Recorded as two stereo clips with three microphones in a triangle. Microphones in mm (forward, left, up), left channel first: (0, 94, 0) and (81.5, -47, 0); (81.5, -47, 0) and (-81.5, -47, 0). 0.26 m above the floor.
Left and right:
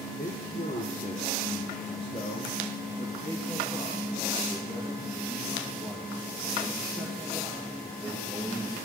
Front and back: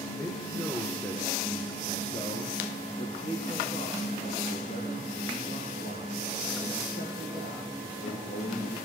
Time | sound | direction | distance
0.2 | a man speaking | 90° left | 4 m